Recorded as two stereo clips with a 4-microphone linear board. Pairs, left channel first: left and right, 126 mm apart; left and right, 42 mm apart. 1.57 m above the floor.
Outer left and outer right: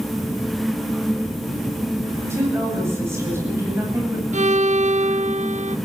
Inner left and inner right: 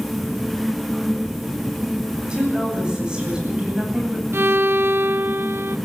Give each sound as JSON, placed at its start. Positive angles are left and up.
{"t": 2.2, "sound": "a woman speaking", "side_deg": -20, "distance_m": 10.0}
{"t": 4.3, "sound": "a violin", "side_deg": -80, "distance_m": 0.6}